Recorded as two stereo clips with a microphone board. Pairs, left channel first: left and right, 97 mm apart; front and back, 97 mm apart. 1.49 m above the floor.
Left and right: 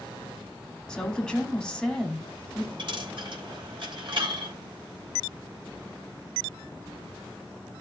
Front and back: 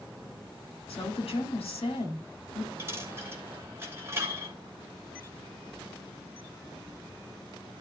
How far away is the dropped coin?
About 3 m.